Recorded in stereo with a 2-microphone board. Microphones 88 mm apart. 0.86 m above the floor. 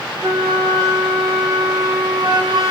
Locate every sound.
0.2 s a flute: 65° right (ahead or behind), 3 m